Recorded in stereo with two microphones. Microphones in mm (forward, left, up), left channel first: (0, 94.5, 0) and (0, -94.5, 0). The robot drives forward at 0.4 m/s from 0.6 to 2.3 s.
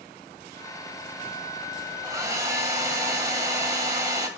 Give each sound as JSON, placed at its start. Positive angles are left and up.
{"t": 2.0, "sound": "a hair dryer", "side_deg": -20, "distance_m": 1.5}